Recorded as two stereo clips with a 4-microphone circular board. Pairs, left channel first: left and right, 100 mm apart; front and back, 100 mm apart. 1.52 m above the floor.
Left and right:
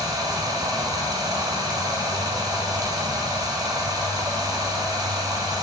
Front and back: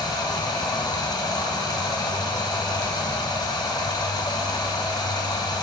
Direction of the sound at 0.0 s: 45° right.